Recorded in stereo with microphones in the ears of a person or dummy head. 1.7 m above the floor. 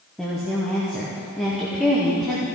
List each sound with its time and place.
0.2 s a woman speaking: centre (ahead or behind), 0.7 m